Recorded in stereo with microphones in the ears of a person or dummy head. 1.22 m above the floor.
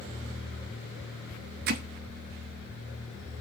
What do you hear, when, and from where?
1.7 s hammering: 60° right (ahead or behind), 0.9 m